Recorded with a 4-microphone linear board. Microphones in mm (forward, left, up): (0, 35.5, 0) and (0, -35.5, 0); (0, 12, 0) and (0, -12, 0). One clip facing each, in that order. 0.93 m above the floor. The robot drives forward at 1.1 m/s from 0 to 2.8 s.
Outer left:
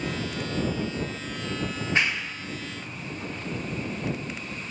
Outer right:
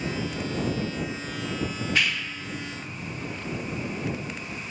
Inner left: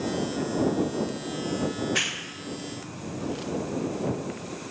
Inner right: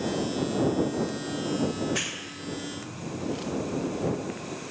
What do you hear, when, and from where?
1.7 s a clap: 30° left (ahead or behind), 0.8 m; by 3.3 s 15° left (ahead or behind), 1.8 m